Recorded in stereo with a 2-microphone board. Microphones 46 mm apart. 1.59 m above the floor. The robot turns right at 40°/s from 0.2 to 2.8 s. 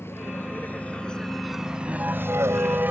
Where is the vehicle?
65° left (ahead or behind); by 2.9 s 40° right (ahead or behind).